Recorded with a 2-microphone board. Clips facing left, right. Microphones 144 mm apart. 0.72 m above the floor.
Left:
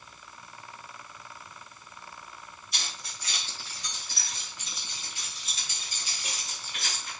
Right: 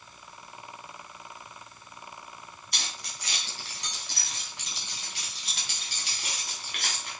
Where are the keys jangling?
75° right (ahead or behind), 4.5 m; by 7.1 s 65° right (ahead or behind), 4.5 m.